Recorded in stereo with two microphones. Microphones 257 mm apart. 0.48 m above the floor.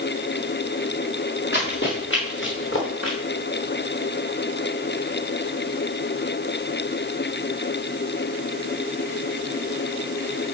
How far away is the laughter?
I don't hear laughter.